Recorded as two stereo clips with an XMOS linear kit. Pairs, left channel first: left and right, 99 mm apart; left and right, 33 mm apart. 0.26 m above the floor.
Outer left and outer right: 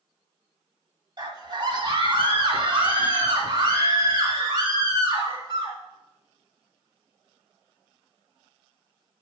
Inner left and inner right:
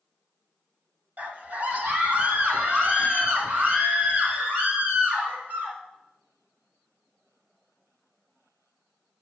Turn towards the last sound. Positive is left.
turn(degrees=-55)  # may be behind; listen again after turning